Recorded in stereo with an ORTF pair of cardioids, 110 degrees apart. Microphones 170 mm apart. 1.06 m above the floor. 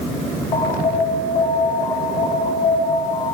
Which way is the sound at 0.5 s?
35° left.